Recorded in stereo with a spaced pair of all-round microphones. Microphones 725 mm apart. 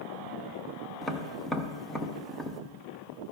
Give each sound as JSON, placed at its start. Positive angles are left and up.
{"t": 1.0, "sound": "tapping", "side_deg": 0, "distance_m": 0.6}